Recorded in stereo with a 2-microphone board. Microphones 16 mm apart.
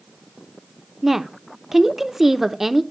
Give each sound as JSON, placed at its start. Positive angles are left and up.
{"t": 1.0, "sound": "a woman speaking", "side_deg": -20, "distance_m": 0.7}